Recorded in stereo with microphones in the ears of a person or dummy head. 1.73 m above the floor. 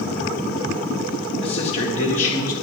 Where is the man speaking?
25° left (ahead or behind), 2.5 m; by 2.5 s 40° left (ahead or behind), 2.5 m.